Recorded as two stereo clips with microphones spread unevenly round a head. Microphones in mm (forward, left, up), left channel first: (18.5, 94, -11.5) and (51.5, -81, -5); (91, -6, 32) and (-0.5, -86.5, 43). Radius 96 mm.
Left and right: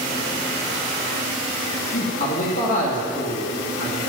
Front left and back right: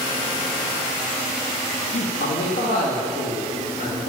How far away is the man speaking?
About 1.7 m.